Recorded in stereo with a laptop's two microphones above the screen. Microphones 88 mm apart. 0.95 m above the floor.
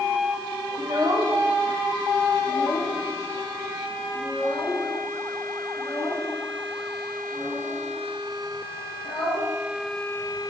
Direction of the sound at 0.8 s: 55° right (ahead or behind).